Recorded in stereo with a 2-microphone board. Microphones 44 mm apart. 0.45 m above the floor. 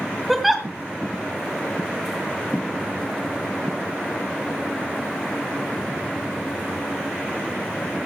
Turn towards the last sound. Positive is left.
turn(degrees=-5)  # may be behind; listen again after turning